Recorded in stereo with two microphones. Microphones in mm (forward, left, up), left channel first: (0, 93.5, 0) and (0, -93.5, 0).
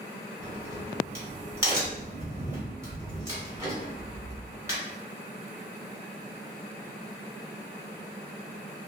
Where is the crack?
15° right (ahead or behind), 1.3 m.